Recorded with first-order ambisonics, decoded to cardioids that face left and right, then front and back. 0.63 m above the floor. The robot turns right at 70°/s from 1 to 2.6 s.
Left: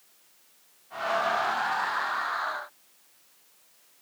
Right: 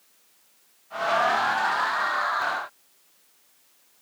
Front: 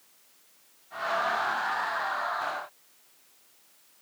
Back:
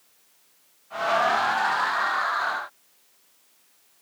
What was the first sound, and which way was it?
Only background noise.